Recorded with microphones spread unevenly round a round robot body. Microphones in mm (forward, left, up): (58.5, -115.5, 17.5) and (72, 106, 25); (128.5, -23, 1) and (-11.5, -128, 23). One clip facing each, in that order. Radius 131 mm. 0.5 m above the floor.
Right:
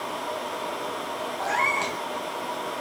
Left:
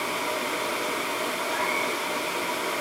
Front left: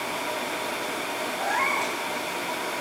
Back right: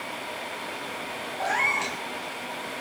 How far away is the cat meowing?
About 3 m.